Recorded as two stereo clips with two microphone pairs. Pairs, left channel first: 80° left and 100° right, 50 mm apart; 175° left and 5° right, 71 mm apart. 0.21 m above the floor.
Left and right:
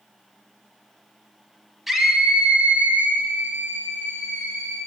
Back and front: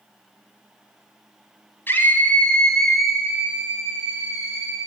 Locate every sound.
1.9 s a scream: straight behind, 1.5 m; by 4.8 s 65° right, 3 m